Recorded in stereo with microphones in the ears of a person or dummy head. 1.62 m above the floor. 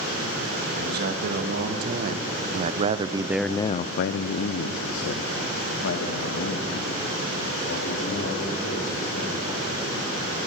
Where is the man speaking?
60° right (ahead or behind), 2.5 m; by 9.6 s 75° left (ahead or behind), 5.5 m.